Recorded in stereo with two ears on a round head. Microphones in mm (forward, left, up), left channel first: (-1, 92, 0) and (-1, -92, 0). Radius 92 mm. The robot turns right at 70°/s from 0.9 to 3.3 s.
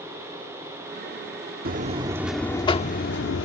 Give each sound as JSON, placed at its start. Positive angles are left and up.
{"t": 1.6, "sound": "a buzzer", "azimuth_deg": -50}